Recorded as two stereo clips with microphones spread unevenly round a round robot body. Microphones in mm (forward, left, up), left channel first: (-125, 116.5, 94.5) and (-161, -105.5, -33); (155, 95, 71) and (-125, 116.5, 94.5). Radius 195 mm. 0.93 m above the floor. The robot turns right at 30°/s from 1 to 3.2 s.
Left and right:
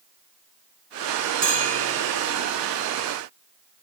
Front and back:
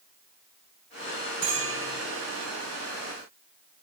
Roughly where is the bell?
Behind right.